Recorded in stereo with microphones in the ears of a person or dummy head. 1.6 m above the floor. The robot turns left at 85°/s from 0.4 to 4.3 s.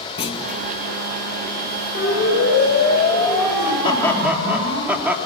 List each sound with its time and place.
0.2 s a clunk: 30° left (ahead or behind), 2 m; by 0.6 s 45° left (ahead or behind), 2 m
1.9 s a siren: 45° left (ahead or behind), 9 m; by 4.8 s 60° right (ahead or behind), 13 m
3.8 s laughter: 35° left, 3 m; by 5.2 s 5° right, 3 m